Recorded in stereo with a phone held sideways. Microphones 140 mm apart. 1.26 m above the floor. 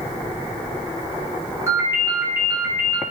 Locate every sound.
1.7 s a ringtone: 20° right (ahead or behind), 0.8 m